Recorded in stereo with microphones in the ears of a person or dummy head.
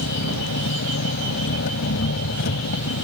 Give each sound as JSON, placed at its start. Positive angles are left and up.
{"t": 0.0, "sound": "an engine running", "side_deg": 60}